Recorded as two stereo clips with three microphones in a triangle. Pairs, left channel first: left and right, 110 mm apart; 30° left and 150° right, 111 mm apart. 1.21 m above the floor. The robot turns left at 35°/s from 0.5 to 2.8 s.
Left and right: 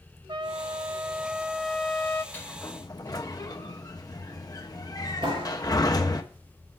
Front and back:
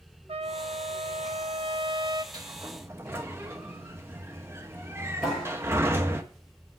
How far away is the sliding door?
About 1.0 m.